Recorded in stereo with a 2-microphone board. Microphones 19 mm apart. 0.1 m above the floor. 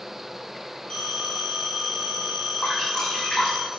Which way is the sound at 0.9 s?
60° left (ahead or behind).